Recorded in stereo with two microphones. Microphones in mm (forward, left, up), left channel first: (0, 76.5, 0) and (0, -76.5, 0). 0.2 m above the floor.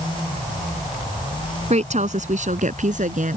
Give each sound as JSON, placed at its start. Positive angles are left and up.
{"t": 1.7, "sound": "a woman speaking", "side_deg": -50}